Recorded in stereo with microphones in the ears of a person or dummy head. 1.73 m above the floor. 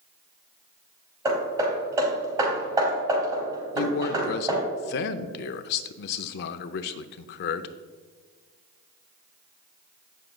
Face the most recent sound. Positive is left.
turn(degrees=60)  # may be behind; listen again after turning